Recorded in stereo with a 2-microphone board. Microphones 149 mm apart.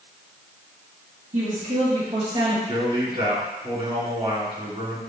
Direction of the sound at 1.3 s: 60° right (ahead or behind).